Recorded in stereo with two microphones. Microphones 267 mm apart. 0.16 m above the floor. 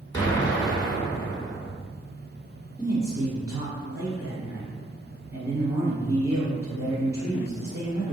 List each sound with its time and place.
0.1 s an explosion: 15° left (ahead or behind), 1.1 m
2.8 s a man speaking: 15° right (ahead or behind), 1.1 m